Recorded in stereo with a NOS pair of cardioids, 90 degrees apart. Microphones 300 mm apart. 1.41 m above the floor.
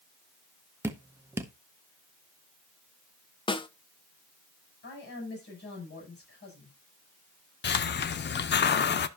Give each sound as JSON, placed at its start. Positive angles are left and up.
{"t": 0.8, "sound": "dripping", "azimuth_deg": -10, "distance_m": 1.4}
{"t": 3.5, "sound": "a snare drum", "azimuth_deg": 15, "distance_m": 0.9}
{"t": 4.8, "sound": "a woman speaking", "azimuth_deg": 35, "distance_m": 8.0}
{"t": 7.6, "sound": "a hiss", "azimuth_deg": 40, "distance_m": 0.7}